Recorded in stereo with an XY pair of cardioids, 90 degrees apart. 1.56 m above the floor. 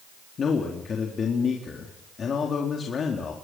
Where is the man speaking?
50° left, 4 m.